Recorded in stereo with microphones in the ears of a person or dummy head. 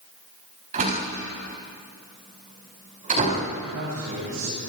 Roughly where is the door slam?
Right.